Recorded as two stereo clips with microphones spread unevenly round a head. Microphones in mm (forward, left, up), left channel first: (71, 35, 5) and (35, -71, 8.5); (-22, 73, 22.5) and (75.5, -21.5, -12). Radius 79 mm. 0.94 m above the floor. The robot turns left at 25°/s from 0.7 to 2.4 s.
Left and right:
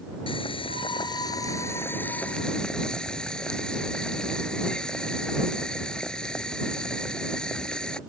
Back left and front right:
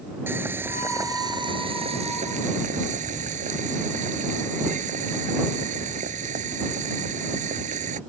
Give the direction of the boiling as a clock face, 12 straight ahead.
11 o'clock.